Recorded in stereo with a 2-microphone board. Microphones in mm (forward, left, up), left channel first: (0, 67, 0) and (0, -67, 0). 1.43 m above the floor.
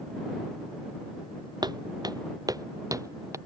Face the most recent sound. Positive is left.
turn(degrees=-25)  # may be behind; listen again after turning